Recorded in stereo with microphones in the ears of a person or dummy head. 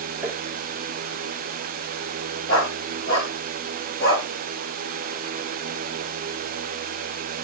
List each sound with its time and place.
0.2 s tapping: 10° right (ahead or behind), 3 m
2.5 s a dog barking: 25° left (ahead or behind), 8.5 m